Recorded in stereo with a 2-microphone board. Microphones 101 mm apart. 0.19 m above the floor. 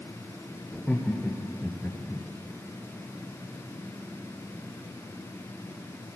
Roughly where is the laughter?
Centre.